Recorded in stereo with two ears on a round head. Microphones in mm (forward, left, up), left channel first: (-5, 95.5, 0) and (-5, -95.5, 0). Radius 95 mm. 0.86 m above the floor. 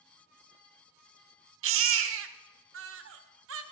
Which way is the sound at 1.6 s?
65° right (ahead or behind).